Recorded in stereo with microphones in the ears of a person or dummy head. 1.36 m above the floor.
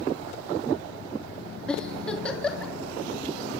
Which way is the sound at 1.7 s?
5° left (ahead or behind).